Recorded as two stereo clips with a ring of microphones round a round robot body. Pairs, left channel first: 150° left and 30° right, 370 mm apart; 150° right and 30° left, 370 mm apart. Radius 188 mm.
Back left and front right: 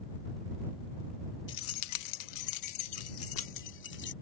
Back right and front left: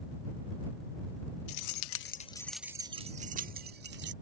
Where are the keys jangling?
155° right; by 4.1 s 90° left.